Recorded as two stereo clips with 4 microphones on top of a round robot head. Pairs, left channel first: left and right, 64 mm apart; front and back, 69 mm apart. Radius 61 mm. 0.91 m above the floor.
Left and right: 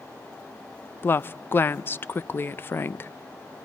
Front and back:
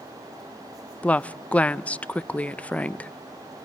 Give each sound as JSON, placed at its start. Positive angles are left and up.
{"t": 1.0, "sound": "a woman speaking", "azimuth_deg": 60, "distance_m": 0.5}